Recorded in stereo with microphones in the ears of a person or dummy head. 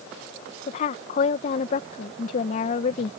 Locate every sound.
0.7 s a woman speaking: 50° left (ahead or behind)